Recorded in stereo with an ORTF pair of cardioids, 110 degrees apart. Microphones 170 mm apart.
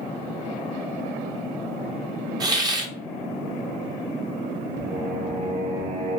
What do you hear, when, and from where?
2.4 s a hiss: 25° right, 0.9 m
4.8 s singing: 50° right, 1.7 m